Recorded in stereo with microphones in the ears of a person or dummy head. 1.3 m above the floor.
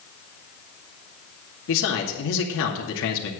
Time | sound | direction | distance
1.7 | a man speaking | 70° left (ahead or behind) | 2 m